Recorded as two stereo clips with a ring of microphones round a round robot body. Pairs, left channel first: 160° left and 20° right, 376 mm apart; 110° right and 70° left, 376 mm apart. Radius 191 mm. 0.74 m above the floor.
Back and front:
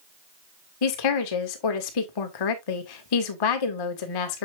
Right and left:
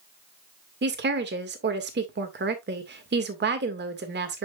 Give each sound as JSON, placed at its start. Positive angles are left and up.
{"t": 0.8, "sound": "a woman speaking", "azimuth_deg": 130, "distance_m": 1.9}